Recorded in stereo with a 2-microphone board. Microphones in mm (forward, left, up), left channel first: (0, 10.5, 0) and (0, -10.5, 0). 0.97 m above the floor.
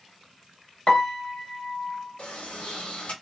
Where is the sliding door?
85° left, 1.9 m.